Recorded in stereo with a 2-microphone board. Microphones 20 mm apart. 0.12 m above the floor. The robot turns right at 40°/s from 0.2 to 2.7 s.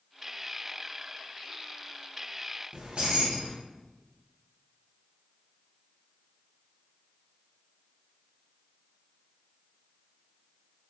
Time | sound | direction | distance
2.7 | keys jangling | 50° right (ahead or behind) | 1.3 m